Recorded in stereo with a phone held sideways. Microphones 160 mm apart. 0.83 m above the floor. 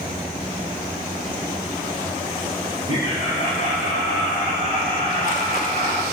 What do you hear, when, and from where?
2.9 s laughter: 50° left (ahead or behind), 5.5 m; by 6.0 s 60° left (ahead or behind), 4 m